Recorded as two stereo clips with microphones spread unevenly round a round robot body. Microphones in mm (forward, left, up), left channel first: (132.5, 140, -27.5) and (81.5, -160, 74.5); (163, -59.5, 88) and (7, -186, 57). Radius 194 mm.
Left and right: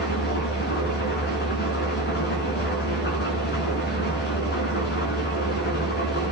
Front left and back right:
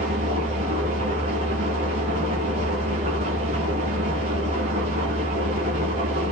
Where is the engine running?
150° left, 3 m.